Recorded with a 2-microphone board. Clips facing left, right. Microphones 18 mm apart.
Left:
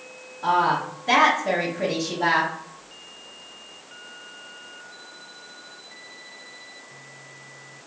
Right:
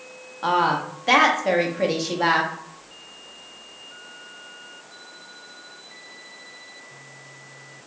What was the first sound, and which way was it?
A woman speaking, 45° right (ahead or behind).